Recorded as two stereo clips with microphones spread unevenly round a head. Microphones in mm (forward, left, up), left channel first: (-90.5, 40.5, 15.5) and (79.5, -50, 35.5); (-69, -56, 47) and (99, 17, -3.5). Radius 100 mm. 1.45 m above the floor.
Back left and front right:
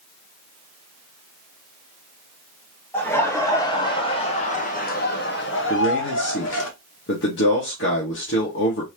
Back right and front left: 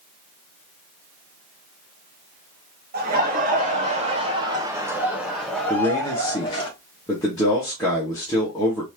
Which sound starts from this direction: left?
Laughter, at 2.9 s.